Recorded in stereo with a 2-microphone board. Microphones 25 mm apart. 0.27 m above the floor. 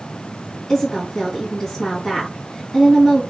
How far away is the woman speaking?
About 2 m.